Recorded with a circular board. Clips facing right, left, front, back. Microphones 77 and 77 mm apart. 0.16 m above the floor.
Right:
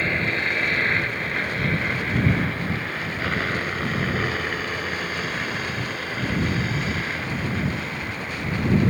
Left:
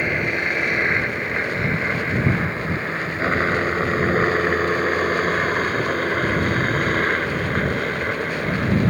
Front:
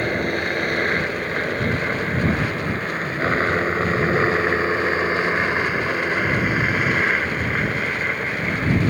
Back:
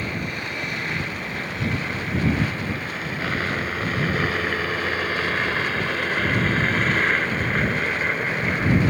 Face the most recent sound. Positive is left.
turn(degrees=95)